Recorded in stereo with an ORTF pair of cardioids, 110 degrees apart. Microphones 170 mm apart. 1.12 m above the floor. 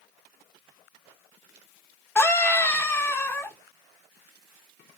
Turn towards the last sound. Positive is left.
turn(degrees=10)